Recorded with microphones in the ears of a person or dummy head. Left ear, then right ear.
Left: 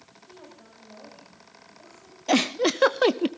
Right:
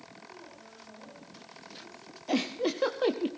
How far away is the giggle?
About 0.5 m.